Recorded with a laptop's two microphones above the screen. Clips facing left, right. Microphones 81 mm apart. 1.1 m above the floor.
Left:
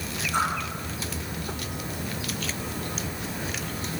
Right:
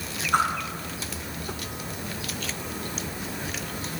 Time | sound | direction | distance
0.3 | a whoosh | 55° right (ahead or behind) | 3 m